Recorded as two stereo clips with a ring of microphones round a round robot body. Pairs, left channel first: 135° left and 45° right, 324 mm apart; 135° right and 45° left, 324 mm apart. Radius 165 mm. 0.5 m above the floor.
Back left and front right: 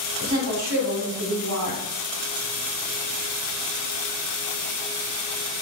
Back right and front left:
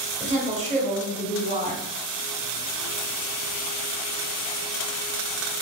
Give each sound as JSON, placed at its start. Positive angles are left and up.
{"t": 0.2, "sound": "a woman speaking", "azimuth_deg": -20, "distance_m": 1.3}